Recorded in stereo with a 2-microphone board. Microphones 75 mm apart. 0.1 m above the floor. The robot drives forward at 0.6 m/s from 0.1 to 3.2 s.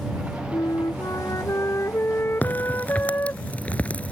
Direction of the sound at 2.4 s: 25° left (ahead or behind).